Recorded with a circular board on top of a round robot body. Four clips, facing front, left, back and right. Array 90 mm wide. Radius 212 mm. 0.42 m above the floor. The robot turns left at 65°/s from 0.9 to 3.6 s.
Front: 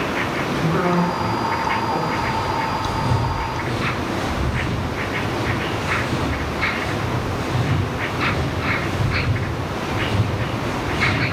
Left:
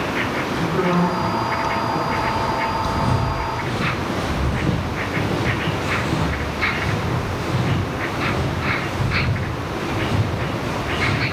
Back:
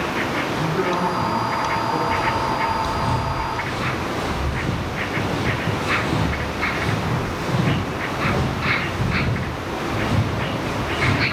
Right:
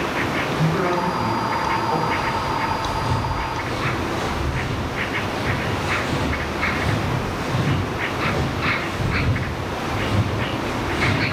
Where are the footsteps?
145° left, 2 m; by 11.2 s 165° right, 4.5 m.